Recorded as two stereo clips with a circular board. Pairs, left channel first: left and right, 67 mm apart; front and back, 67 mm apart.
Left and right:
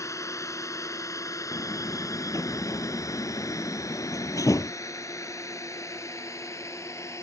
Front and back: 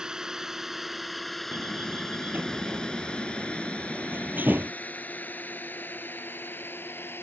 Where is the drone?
105° left; by 7.2 s 55° left.